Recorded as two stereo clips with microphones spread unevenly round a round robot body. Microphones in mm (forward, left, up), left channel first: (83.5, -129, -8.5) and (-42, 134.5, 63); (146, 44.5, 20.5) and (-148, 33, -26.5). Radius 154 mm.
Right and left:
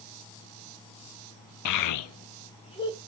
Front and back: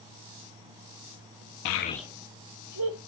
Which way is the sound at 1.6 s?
40° right.